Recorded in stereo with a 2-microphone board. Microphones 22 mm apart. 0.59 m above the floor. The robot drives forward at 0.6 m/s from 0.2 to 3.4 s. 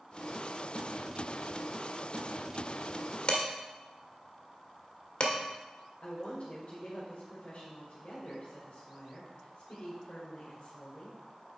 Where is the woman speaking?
65° left (ahead or behind), 2 m.